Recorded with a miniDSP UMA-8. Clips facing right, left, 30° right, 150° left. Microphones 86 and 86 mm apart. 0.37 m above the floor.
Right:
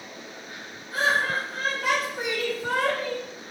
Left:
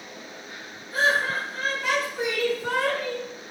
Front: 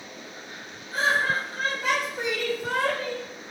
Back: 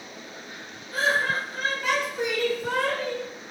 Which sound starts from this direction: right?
Laughter, at 0.9 s.